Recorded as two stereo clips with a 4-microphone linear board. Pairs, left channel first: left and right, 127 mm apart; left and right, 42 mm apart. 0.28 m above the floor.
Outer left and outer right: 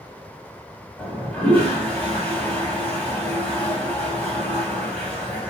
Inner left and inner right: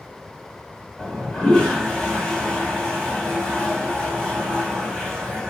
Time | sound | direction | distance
1.0 | a toilet flushing | 10° left (ahead or behind) | 2.0 m